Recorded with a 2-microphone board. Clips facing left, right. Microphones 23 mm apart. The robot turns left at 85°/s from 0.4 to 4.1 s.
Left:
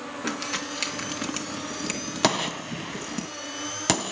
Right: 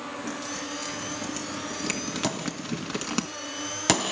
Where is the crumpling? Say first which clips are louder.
Left 7 dB; 60° left (ahead or behind), 2.5 m; by 3.2 s 55° right (ahead or behind), 2.5 m.